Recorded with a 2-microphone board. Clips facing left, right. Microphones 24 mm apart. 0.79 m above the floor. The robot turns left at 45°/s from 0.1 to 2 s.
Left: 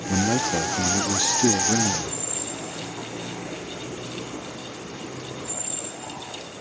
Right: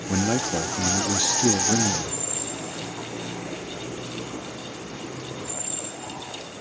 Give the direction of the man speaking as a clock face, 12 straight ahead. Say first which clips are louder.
Left 1 dB; 5 o'clock.